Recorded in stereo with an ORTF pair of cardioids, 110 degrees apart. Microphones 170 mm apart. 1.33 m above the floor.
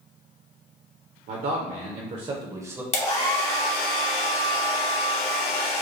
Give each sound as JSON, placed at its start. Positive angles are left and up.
{"t": 1.3, "sound": "a man speaking", "azimuth_deg": -65, "distance_m": 0.9}
{"t": 2.9, "sound": "a hair dryer", "azimuth_deg": 40, "distance_m": 1.3}